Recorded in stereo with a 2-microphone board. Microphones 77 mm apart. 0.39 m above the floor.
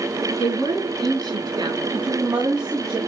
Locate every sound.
0.4 s a woman speaking: 70° right (ahead or behind), 7 m
1.9 s a woman speaking: 65° right (ahead or behind), 2 m